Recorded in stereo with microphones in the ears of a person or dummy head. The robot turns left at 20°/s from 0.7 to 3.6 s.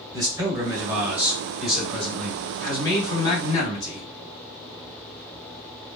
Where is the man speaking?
160° right, 1.6 m; by 4.1 s 145° left, 1.6 m.